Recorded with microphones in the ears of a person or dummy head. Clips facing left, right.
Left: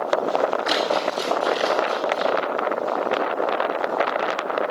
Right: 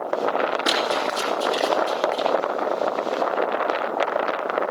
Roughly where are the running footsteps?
Right.